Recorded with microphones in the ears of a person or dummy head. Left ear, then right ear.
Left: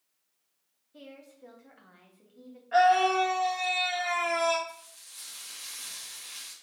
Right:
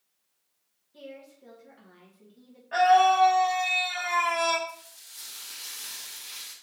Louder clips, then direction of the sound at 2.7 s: Right 3 dB; 5° left (ahead or behind).